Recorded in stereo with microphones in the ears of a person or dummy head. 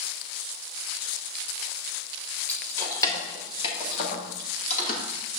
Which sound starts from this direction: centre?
Keys jangling, at 2.5 s.